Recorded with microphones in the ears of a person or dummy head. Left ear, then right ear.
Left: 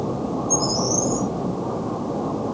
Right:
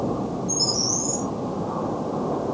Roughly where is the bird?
Right.